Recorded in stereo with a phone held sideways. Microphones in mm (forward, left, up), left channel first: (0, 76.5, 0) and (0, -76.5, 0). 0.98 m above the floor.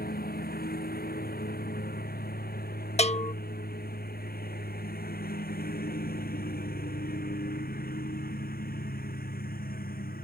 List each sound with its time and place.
0.0 s a lawn mower: 80° left; by 10.2 s 75° left (ahead or behind)
3.0 s a bell: 45° left (ahead or behind)